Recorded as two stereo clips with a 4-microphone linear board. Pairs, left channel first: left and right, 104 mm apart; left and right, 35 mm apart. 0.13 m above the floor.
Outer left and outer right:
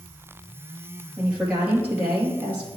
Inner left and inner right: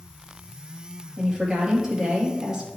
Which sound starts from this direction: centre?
A woman speaking, at 1.2 s.